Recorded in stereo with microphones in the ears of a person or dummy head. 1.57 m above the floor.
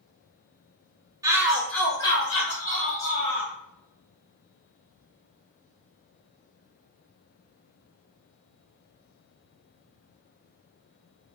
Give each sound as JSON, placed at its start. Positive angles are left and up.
{"t": 1.2, "sound": "a shout", "side_deg": -15, "distance_m": 0.7}